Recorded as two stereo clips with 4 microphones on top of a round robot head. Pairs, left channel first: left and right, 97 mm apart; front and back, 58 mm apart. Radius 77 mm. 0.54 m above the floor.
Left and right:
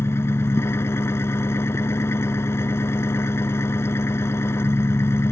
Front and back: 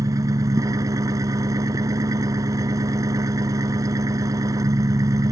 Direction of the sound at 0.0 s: 155° left.